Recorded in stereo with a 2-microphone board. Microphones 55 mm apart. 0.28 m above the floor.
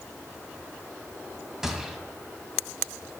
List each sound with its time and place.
1.6 s a gunshot: 10° right (ahead or behind), 2 m